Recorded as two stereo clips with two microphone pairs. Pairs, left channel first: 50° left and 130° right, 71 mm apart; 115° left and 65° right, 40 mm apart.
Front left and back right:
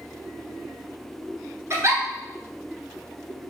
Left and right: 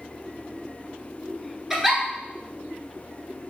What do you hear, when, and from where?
1.7 s a giggle: 145° right, 1.4 m